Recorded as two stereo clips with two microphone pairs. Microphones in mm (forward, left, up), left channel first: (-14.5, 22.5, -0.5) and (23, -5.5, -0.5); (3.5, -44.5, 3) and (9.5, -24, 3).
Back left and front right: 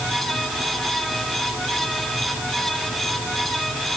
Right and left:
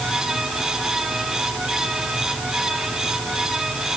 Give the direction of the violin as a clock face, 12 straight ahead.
I don't hear a violin.